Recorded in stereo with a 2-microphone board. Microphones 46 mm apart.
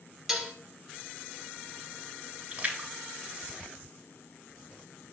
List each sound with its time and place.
0.3 s dishes clattering: 10° right (ahead or behind), 0.6 m
2.5 s a splash: 25° right (ahead or behind), 1.3 m